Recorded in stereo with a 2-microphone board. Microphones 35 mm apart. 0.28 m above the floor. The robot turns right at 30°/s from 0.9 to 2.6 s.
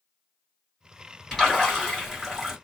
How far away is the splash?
About 1.6 m.